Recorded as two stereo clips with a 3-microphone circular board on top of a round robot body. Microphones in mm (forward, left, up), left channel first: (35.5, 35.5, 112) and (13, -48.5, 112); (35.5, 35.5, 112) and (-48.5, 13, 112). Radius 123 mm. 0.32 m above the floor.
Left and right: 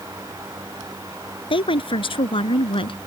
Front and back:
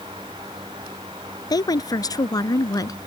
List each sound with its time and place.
1.5 s a woman speaking: 60° left; by 3.0 s 65° left